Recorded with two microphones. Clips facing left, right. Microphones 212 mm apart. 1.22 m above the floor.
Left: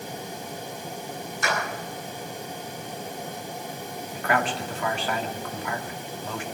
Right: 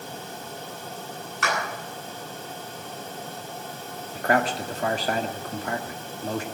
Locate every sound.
1.4 s a clap: 80° right, 10 m
4.2 s a man speaking: 40° right (ahead or behind), 2 m